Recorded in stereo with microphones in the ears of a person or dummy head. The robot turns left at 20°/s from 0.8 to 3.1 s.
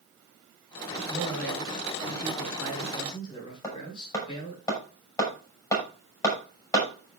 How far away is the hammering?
About 6 m.